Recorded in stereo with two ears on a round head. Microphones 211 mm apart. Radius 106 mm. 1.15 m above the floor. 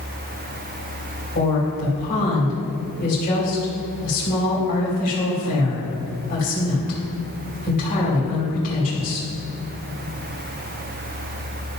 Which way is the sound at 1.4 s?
35° left (ahead or behind).